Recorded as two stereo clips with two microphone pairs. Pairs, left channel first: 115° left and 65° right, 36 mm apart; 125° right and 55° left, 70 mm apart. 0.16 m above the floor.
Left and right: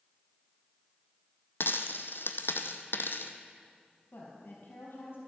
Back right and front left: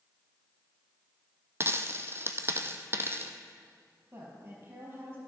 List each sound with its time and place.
1.6 s a dropped coin: 105° left, 0.8 m
4.1 s a woman speaking: 110° left, 4.5 m